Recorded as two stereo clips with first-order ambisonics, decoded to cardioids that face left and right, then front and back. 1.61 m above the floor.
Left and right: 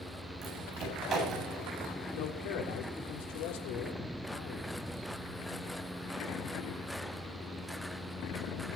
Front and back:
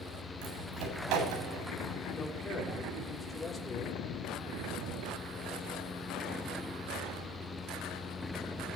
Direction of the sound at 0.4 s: 150° right.